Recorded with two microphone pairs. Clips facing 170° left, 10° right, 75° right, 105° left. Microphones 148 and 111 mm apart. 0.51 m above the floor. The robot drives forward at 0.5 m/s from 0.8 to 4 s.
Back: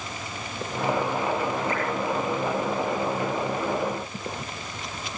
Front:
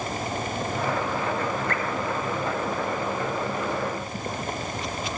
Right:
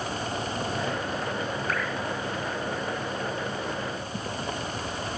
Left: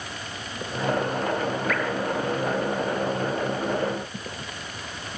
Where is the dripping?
20° right, 6 m.